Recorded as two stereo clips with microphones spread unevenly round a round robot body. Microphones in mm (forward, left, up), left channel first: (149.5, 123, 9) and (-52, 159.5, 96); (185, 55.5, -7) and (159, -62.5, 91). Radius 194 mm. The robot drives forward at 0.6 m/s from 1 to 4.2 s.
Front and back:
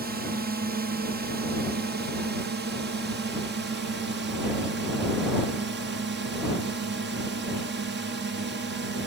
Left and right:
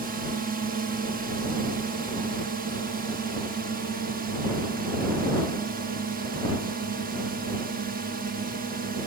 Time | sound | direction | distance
0.0 | a drone | 145° right | ?